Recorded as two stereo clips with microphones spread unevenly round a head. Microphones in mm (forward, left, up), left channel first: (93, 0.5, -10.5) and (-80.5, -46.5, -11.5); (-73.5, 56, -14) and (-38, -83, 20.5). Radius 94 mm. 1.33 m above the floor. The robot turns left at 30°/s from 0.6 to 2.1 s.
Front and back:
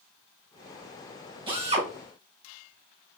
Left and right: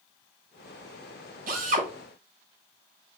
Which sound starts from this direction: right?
A drill, at 1.5 s.